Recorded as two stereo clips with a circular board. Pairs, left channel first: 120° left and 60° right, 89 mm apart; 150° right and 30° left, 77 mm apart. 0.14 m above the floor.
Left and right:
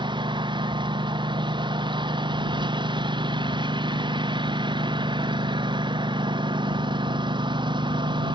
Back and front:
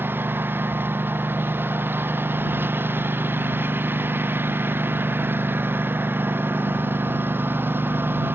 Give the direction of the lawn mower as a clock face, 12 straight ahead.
1 o'clock.